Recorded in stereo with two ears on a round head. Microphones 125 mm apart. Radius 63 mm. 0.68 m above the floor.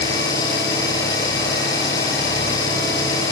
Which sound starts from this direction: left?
An engine running, at 0.0 s.